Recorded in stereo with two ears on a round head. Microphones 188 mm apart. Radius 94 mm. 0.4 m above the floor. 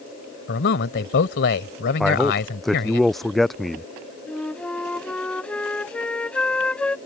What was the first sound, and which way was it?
A man speaking, 55° left (ahead or behind).